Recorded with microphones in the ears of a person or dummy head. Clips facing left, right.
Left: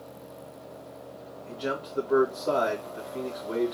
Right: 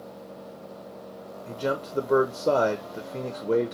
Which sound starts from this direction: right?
A man speaking, at 1.5 s.